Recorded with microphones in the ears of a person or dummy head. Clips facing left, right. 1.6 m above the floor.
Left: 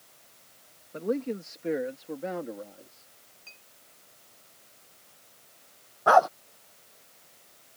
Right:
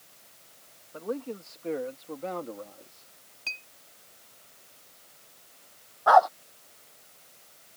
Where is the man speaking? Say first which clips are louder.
Left 4 dB; 30° left (ahead or behind); by 3.1 s 5° left (ahead or behind).